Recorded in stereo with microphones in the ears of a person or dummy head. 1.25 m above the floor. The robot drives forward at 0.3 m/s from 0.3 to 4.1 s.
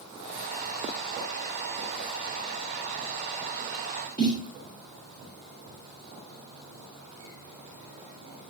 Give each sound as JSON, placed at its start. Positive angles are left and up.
{"t": 4.2, "sound": "a snare drum", "side_deg": 20, "distance_m": 1.5}